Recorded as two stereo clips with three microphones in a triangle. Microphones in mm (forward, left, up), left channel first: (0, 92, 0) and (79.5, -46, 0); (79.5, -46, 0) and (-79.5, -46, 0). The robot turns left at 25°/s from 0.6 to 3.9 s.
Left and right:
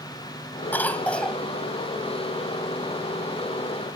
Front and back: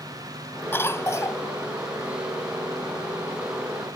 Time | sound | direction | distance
0.7 | a cough | 55° left | ?